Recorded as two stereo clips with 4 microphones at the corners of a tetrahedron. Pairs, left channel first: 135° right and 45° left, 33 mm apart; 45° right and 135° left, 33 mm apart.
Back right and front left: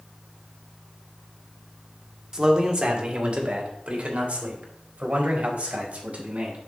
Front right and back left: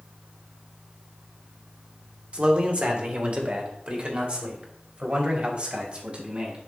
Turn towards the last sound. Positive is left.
turn(degrees=90)